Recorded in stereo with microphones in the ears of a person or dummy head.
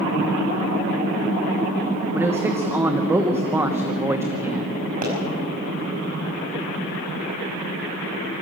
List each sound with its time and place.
2.1 s a man speaking: 15° right (ahead or behind), 1.1 m
5.0 s a pop: 50° right (ahead or behind), 5 m